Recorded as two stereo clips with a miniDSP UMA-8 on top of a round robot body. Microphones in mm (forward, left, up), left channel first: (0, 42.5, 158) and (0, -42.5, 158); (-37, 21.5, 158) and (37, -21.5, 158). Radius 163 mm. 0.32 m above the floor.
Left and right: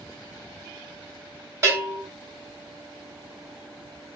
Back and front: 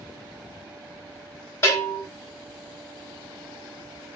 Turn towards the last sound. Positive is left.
turn(degrees=-150)